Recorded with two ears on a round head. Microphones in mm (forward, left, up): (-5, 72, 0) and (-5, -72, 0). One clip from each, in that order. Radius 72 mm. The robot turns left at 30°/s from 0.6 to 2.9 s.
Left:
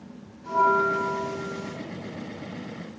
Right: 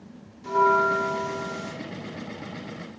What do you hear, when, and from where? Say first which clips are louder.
0.4 s a bell: right 1 dB; 75° right, 0.6 m; by 1.8 s 110° right, 0.6 m